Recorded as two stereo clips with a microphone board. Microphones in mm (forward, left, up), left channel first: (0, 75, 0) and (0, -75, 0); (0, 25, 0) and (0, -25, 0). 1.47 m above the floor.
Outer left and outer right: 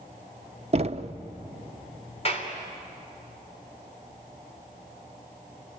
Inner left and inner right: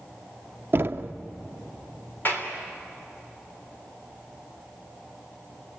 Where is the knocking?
45° right (ahead or behind), 0.8 m.